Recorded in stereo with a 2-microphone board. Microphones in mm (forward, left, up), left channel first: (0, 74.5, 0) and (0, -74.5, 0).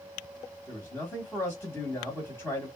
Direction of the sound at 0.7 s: 15° left (ahead or behind).